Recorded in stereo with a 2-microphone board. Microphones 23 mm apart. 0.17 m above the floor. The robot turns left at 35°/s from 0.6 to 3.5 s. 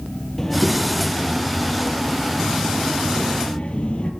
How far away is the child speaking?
About 4 m.